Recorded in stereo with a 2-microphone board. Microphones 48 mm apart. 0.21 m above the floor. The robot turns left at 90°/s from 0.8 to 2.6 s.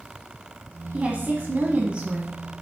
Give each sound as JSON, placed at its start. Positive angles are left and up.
{"t": 0.9, "sound": "a woman speaking", "azimuth_deg": -40, "distance_m": 1.2}